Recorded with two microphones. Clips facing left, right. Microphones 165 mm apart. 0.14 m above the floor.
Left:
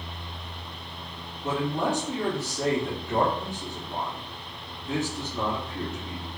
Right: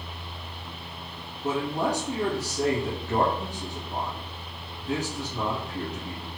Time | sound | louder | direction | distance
1.4 | a man speaking | even | 40° right (ahead or behind) | 2.0 m